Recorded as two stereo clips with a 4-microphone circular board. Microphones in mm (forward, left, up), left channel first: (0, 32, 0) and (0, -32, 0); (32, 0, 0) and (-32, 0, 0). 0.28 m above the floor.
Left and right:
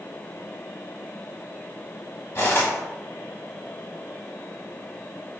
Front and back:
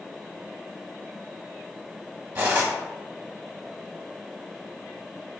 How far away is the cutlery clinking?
About 0.9 m.